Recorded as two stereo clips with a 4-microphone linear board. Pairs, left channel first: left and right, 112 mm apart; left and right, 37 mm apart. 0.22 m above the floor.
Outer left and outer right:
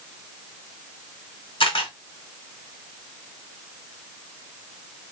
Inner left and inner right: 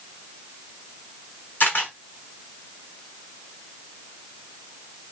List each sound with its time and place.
1.6 s a camera shutter: 50° left (ahead or behind), 1.3 m